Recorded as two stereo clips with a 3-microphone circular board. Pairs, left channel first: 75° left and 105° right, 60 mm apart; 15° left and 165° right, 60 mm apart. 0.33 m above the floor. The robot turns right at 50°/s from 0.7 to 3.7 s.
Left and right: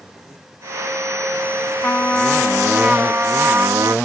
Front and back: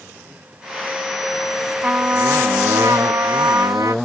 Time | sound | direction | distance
1.8 | a trumpet | 125° left | 0.5 m